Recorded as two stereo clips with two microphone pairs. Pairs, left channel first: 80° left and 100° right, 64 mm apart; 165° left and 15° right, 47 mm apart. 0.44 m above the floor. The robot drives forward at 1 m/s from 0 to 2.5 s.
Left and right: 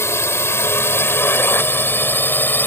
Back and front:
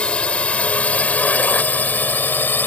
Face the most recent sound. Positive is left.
turn(degrees=130)